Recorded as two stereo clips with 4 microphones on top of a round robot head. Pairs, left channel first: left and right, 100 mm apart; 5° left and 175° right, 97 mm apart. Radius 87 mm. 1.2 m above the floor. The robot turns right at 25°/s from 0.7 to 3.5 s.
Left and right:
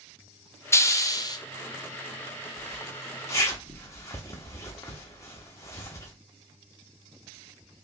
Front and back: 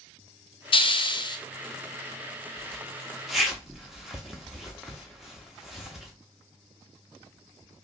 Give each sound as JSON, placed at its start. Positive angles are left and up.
{"t": 0.7, "sound": "a hiss", "azimuth_deg": 30, "distance_m": 0.6}
{"t": 2.6, "sound": "a zipper", "azimuth_deg": 80, "distance_m": 0.6}